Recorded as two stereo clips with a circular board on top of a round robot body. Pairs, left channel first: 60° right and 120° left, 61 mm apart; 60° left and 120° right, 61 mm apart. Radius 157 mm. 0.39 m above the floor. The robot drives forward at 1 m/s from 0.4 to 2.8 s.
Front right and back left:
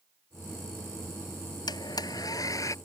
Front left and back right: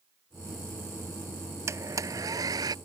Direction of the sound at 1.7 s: 75° right.